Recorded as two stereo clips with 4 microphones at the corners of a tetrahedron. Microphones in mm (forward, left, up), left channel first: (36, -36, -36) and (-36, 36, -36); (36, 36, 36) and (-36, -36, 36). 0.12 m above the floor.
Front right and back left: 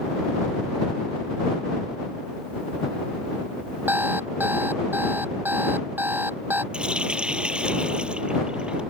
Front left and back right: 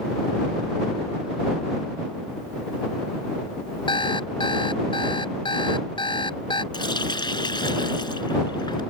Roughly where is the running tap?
Ahead left.